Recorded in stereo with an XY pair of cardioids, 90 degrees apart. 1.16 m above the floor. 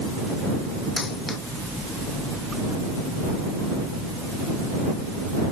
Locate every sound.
1.0 s a dropped coin: 35° left